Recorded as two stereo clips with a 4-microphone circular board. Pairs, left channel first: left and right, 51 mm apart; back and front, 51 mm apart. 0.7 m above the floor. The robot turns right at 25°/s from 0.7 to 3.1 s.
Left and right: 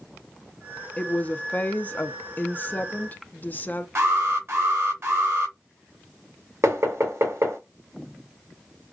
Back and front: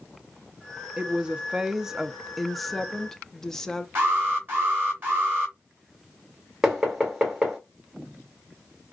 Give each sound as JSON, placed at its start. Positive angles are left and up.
{"t": 1.0, "sound": "a woman speaking", "azimuth_deg": 50, "distance_m": 0.7}
{"t": 4.0, "sound": "an alarm", "azimuth_deg": -50, "distance_m": 3.0}
{"t": 6.6, "sound": "knocking", "azimuth_deg": -75, "distance_m": 2.0}